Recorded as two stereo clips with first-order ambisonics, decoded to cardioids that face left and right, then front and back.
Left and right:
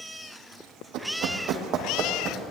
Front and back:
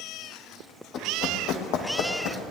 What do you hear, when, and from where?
0.9 s running footsteps: 50° right, 1.8 m; by 2.5 s 25° right, 2.5 m